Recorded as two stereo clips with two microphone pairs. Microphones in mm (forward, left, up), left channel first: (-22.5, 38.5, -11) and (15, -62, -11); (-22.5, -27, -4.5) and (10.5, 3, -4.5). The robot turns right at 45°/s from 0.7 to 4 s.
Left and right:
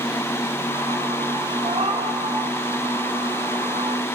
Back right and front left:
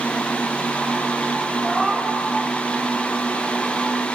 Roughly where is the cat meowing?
Ahead right.